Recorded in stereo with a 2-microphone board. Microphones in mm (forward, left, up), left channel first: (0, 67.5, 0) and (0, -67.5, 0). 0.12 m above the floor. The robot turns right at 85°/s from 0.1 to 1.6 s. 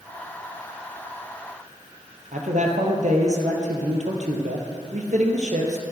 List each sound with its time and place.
2.3 s a man speaking: 65° right (ahead or behind), 3 m